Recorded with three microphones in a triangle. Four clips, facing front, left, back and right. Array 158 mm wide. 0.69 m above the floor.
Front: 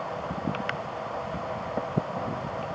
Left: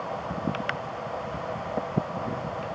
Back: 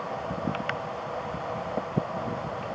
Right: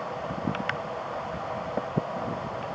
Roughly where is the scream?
I don't hear a scream.